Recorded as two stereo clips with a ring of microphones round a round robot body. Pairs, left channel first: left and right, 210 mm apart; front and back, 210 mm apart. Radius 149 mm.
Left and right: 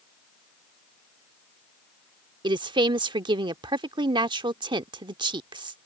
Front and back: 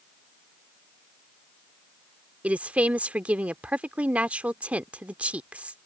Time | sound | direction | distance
2.4 | a woman speaking | 105° right | ?